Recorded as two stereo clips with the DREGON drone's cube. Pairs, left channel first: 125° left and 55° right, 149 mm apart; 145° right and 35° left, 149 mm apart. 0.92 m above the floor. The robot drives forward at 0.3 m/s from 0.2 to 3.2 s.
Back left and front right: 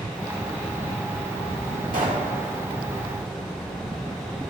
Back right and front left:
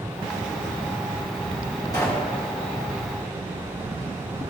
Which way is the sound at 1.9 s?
80° right.